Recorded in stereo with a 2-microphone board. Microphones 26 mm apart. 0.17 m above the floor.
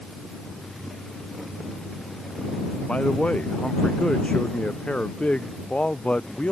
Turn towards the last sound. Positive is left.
turn(degrees=45)  # may be behind; listen again after turning